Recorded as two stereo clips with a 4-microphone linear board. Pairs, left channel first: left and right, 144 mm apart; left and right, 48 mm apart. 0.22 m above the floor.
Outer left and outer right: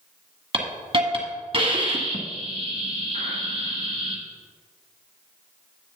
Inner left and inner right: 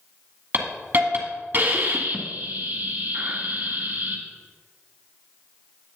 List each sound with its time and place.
0.5 s a hiss: 40° right (ahead or behind), 1.7 m